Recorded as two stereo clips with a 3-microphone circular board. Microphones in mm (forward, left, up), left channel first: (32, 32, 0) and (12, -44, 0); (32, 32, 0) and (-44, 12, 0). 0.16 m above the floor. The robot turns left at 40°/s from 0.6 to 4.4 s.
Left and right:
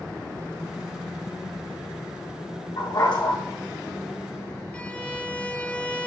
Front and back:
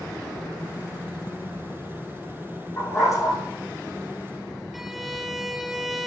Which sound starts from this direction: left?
A dog barking, at 2.8 s.